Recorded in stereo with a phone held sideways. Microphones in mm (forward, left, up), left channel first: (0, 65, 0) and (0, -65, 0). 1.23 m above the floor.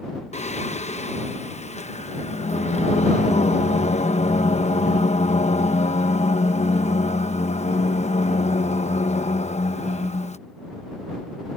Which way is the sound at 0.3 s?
60° left (ahead or behind).